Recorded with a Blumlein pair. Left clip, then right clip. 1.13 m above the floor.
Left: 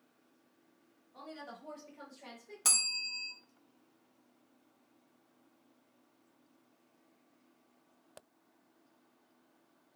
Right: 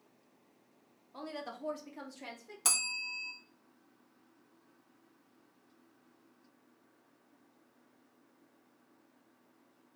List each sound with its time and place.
1.1 s a woman speaking: 60° right, 1.1 m; by 2.5 s 20° right, 1.3 m
2.6 s a bell: straight ahead, 0.6 m